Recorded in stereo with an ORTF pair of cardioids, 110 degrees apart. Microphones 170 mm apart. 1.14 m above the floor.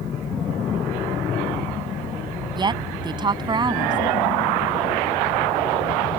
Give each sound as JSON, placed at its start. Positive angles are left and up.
{"t": 2.5, "sound": "a woman speaking", "azimuth_deg": -25}